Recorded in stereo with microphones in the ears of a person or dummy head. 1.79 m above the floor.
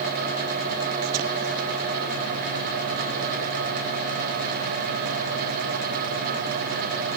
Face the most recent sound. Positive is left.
No sound to turn to.